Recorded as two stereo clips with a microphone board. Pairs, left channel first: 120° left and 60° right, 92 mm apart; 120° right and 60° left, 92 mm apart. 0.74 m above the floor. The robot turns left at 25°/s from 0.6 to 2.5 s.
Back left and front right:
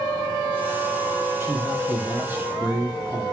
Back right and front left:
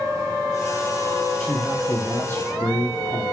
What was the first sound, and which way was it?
A man speaking, 70° right.